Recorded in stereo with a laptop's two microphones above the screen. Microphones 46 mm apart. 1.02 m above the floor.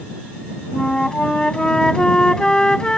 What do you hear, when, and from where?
0.7 s a flute: 20° left (ahead or behind)